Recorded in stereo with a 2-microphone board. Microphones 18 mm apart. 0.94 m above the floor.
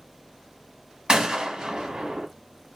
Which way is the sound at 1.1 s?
55° right (ahead or behind).